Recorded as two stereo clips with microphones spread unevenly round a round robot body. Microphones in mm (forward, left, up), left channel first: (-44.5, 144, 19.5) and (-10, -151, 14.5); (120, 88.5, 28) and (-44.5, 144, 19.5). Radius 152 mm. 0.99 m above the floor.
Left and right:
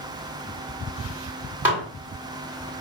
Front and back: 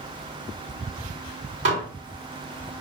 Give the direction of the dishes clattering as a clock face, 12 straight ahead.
6 o'clock.